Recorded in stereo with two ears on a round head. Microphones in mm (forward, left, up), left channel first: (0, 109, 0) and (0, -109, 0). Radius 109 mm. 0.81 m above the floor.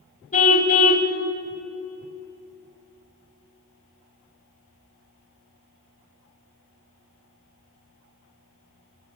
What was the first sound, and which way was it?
A car horn, 30° left (ahead or behind).